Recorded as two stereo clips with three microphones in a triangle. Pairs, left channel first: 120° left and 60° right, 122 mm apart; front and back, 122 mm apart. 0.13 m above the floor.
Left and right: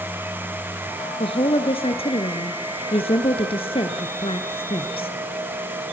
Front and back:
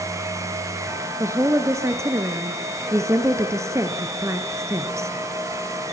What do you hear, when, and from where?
1.2 s a woman speaking: 120° left, 1.9 m